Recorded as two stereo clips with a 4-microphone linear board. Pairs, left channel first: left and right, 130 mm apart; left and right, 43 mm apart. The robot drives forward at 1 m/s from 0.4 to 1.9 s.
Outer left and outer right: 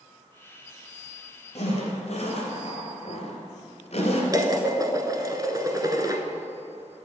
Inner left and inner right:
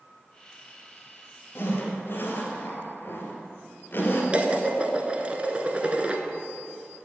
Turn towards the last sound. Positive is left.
turn(degrees=-30)  # may be behind; listen again after turning